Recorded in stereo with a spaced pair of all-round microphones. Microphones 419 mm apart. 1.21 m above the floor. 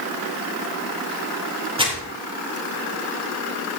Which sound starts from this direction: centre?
Crumpling, at 1.8 s.